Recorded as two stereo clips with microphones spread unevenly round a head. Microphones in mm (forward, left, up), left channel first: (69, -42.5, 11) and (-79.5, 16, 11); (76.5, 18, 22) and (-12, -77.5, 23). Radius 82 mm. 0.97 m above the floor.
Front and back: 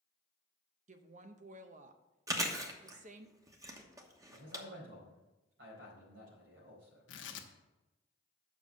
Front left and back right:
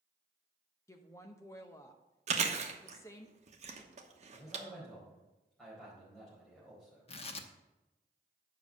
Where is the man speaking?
135° left, 4.5 m.